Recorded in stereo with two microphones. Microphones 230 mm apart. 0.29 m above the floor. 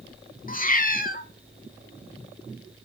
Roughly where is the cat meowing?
Left.